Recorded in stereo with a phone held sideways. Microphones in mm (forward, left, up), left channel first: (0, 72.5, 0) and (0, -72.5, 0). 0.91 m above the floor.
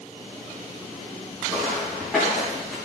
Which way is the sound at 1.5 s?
5° left (ahead or behind).